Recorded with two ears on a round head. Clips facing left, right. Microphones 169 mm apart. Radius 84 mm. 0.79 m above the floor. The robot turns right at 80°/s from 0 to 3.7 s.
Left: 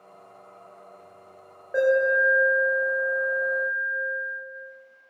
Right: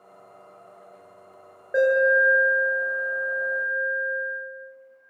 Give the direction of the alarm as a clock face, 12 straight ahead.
1 o'clock.